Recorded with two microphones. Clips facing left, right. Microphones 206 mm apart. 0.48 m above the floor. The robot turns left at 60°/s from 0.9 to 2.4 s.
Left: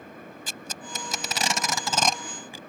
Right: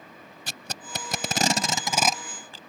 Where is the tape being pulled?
75° right (ahead or behind); by 2.6 s 15° left (ahead or behind).